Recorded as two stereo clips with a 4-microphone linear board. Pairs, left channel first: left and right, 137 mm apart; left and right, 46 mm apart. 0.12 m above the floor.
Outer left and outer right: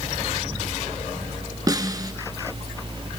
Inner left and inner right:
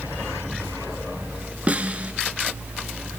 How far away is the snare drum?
About 0.8 m.